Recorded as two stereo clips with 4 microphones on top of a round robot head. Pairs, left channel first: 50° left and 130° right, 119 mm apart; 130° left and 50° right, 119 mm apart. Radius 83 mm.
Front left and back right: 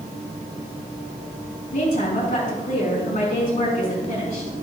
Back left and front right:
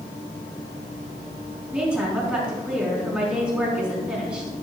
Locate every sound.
1.7 s a woman speaking: 35° left, 5 m